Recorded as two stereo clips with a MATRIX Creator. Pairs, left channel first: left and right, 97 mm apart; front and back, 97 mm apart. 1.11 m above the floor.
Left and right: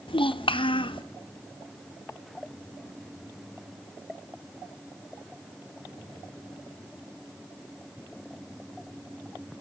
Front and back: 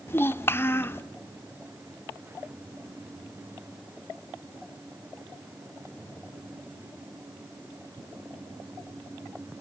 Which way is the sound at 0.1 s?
65° left.